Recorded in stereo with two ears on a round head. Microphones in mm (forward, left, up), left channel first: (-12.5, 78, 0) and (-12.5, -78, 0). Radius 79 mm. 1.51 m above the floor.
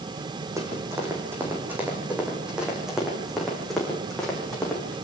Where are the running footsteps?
15° right (ahead or behind), 5.5 m; by 5.0 s 5° left (ahead or behind), 6.5 m.